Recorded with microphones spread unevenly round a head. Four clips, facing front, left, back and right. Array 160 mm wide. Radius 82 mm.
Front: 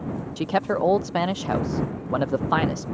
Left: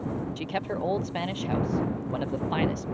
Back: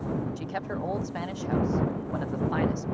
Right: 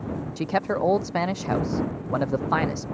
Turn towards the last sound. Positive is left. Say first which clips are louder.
# right 6 dB, front 10 dB
turn(degrees=-25)